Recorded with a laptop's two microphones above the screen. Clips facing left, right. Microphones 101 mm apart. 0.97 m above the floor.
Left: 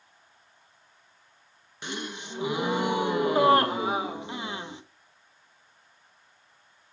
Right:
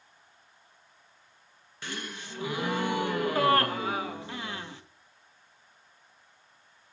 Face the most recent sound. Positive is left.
turn(degrees=20)  # may be behind; listen again after turning